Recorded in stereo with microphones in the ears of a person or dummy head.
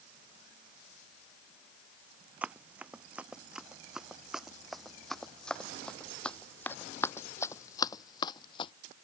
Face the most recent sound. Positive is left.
turn(degrees=35)  # may be behind; listen again after turning